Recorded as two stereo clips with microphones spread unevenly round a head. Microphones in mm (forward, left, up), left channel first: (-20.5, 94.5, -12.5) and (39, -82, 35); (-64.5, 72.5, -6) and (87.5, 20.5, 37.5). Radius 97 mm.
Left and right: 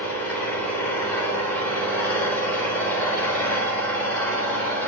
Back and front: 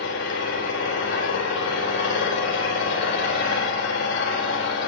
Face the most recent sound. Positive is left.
turn(degrees=-170)